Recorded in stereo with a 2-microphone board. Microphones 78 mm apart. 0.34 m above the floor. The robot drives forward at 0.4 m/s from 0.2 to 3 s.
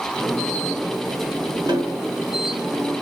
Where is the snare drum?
65° right (ahead or behind), 2.5 m; by 2.0 s 60° right (ahead or behind), 2.5 m.